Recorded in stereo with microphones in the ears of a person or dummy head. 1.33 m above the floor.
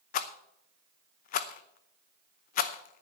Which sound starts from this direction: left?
A rattle, at 0.1 s.